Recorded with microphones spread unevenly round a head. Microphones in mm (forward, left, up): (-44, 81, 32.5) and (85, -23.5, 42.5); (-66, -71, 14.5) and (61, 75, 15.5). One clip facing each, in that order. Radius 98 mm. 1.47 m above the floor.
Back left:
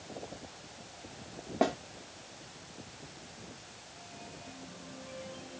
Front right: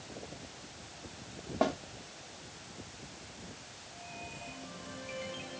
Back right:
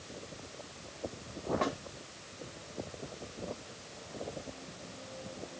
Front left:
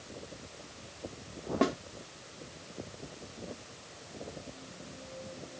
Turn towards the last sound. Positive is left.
turn(degrees=65)